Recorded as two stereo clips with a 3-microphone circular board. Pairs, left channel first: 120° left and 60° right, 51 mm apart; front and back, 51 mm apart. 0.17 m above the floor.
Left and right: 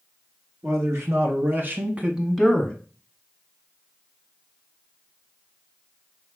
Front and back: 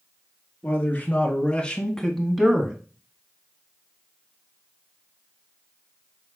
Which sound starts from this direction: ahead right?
A man speaking, at 0.6 s.